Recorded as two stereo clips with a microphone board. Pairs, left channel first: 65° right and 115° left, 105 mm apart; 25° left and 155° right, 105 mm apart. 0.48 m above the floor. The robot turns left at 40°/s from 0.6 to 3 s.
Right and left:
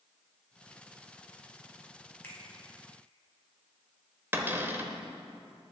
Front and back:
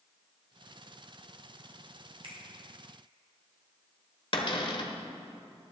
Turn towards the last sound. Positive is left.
turn(degrees=45)